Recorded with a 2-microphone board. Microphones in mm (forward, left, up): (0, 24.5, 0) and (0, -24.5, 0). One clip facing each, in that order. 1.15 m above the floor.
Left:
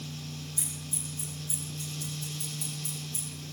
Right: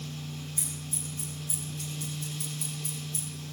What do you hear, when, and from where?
0.6 s scissors: 60° right (ahead or behind), 6.5 m